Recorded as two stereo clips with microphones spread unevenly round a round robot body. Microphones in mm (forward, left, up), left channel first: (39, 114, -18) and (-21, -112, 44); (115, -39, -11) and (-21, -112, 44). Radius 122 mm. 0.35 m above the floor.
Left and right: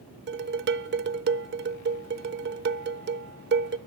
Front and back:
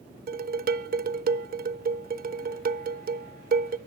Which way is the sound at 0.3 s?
145° right.